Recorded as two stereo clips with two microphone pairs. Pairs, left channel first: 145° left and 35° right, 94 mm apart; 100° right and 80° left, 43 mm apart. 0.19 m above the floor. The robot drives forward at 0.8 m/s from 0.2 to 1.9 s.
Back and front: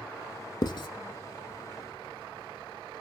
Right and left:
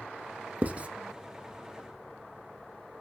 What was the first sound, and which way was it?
Writing, 115° left.